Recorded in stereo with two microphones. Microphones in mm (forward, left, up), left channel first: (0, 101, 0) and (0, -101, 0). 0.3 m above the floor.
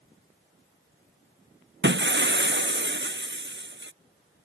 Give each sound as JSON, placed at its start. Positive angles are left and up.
{"t": 1.8, "sound": "breaking glass", "side_deg": -55}